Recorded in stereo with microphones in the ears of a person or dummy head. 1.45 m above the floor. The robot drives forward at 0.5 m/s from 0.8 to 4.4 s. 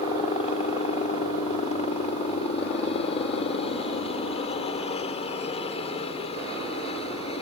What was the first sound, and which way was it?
A helicopter, 35° left (ahead or behind).